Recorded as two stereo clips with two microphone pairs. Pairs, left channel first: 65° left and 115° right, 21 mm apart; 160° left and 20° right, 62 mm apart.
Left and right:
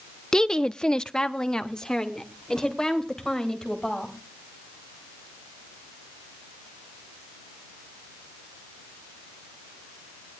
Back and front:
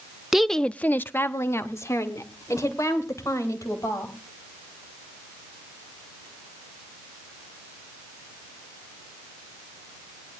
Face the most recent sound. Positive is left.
turn(degrees=130)